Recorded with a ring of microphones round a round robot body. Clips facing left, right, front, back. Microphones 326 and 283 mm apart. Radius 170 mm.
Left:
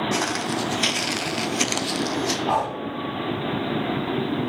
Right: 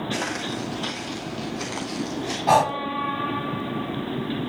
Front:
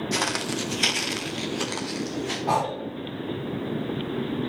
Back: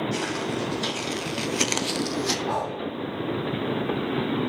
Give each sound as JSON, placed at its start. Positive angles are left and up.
{"t": 0.1, "sound": "footsteps", "azimuth_deg": 20, "distance_m": 1.2}
{"t": 2.5, "sound": "breathing", "azimuth_deg": -55, "distance_m": 0.7}